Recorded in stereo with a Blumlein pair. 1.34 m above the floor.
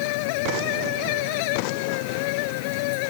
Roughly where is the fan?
Ahead left.